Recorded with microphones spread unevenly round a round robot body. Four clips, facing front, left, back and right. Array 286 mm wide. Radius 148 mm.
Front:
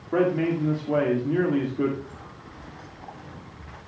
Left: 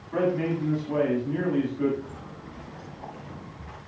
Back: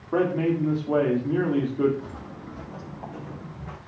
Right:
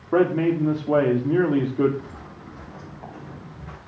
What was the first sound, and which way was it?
A man speaking, 80° right.